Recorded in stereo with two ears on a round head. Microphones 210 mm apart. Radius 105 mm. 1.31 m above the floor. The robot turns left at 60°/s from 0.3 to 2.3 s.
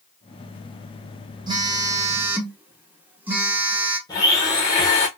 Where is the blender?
15° left (ahead or behind), 1.1 m.